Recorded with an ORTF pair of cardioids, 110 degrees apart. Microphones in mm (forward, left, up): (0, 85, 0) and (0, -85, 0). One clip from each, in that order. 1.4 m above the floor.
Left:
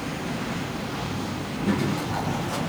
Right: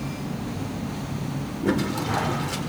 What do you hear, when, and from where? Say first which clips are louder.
1.6 s a toilet flushing: right 2 dB; 45° right, 5 m